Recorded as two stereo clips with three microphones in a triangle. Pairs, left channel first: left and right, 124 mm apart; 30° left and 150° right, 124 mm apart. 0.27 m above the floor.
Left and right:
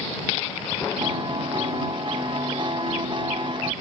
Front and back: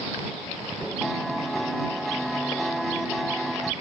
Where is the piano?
60° right.